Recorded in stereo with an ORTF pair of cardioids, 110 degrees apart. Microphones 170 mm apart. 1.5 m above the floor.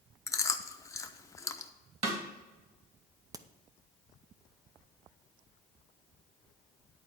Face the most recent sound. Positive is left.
turn(degrees=-20)